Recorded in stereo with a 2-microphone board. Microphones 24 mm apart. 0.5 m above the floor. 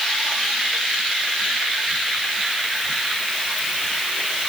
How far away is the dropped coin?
No dropped coin in this recording.